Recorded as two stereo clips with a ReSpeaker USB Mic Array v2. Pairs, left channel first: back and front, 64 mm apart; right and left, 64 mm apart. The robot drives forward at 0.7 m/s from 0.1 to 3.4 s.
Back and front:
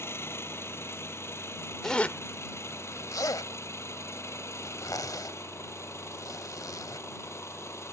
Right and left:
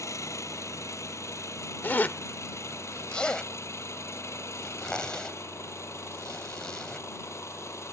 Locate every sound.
0.0 s an engine running: 125° right; by 7.9 s 130° right
1.8 s a zipper: 100° right; by 7.0 s 165° right